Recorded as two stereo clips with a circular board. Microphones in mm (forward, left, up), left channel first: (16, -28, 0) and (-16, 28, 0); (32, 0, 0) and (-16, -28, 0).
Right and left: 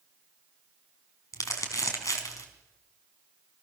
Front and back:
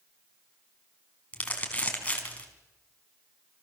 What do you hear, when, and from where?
1.3 s crumpling: 35° right, 4.5 m